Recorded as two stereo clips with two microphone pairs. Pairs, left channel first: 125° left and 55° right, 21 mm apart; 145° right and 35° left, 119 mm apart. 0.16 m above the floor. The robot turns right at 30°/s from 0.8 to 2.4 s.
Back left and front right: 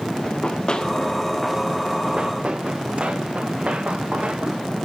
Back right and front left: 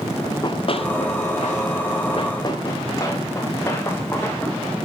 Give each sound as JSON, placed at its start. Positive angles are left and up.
{"t": 0.2, "sound": "running footsteps", "azimuth_deg": 160, "distance_m": 2.0}